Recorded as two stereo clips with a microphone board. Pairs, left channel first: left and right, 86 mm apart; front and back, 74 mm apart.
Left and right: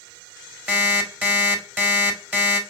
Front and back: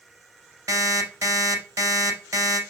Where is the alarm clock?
155° right, 1.4 m.